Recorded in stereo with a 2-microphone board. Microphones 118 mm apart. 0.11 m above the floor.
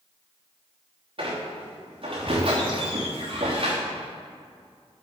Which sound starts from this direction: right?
A squeak, at 1.2 s.